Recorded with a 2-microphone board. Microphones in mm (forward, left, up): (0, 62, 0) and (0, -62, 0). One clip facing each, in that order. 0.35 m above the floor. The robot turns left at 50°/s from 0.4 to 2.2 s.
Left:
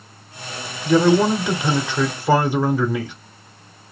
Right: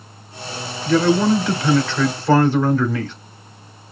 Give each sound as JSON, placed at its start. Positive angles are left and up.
{"t": 0.8, "sound": "a man speaking", "side_deg": 15, "distance_m": 0.8}